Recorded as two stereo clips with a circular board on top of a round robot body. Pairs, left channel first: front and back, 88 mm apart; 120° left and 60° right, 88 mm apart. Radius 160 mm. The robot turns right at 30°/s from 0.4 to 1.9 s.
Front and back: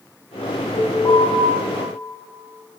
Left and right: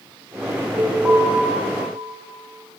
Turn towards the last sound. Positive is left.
turn(degrees=40)